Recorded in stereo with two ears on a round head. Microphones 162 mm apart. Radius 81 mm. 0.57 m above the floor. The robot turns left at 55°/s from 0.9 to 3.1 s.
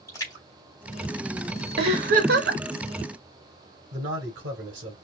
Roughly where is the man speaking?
Right.